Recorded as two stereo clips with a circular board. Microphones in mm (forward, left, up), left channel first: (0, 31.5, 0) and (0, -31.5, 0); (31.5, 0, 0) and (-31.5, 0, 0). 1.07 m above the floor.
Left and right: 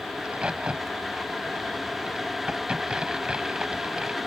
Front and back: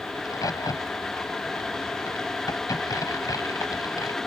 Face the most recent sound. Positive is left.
turn(degrees=-15)